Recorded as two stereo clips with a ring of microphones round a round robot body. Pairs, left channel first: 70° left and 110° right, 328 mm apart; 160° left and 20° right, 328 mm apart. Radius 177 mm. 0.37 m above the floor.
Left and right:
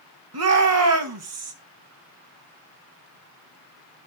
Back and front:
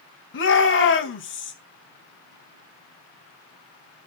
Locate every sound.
0.3 s a shout: 150° right, 3 m